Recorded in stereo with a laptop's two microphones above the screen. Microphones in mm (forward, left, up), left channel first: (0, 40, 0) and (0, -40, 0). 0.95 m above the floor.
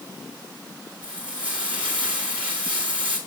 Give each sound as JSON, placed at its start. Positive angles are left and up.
{"t": 1.0, "sound": "frying", "side_deg": -15, "distance_m": 4.5}